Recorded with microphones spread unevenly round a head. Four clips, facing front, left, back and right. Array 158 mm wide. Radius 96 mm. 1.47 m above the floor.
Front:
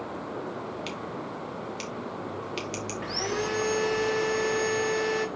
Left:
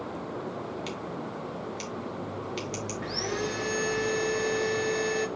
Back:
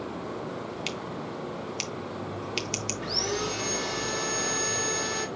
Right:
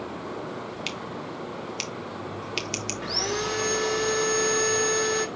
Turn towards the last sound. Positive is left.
turn(degrees=-50)